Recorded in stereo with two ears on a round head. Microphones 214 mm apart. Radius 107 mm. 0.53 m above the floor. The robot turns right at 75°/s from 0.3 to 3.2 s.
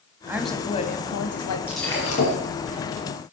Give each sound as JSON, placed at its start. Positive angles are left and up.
{"t": 0.3, "sound": "a woman speaking", "azimuth_deg": -10, "distance_m": 3.0}
{"t": 1.7, "sound": "breaking glass", "azimuth_deg": -5, "distance_m": 7.0}